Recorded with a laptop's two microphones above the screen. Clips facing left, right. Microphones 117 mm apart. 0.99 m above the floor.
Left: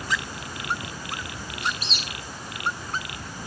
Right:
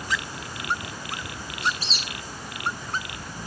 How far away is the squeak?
About 0.9 m.